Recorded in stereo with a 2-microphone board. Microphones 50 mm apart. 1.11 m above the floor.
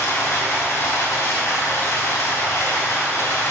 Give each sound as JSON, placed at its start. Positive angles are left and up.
{"t": 0.0, "sound": "running water", "side_deg": 70, "distance_m": 3.5}